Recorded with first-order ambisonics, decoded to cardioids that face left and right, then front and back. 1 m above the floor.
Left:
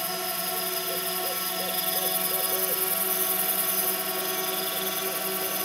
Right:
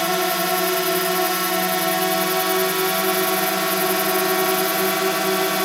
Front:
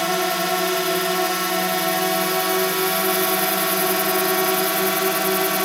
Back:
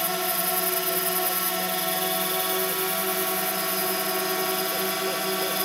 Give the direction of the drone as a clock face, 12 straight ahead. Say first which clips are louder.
Right 11 dB, front 6 dB; 2 o'clock.